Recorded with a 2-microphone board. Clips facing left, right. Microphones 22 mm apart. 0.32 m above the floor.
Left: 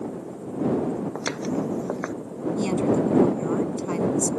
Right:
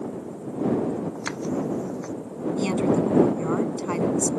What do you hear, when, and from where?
1.1 s footsteps: 55° left (ahead or behind)
2.6 s a woman speaking: 20° right (ahead or behind)